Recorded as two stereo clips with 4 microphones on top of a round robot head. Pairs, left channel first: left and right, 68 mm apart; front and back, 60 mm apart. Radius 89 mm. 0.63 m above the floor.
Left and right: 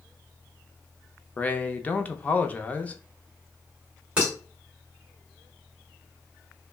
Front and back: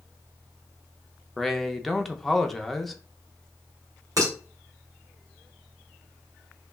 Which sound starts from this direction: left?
A man speaking, at 1.4 s.